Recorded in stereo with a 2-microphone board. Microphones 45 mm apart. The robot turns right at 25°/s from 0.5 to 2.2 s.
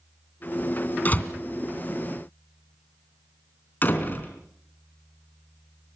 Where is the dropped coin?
No dropped coin in this recording.